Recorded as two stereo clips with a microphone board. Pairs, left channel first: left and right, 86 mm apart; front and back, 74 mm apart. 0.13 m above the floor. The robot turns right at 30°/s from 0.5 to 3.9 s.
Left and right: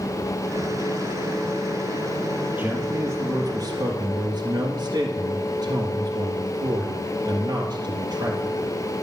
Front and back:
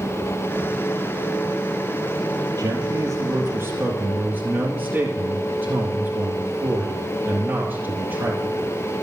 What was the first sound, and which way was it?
A man speaking, 155° right.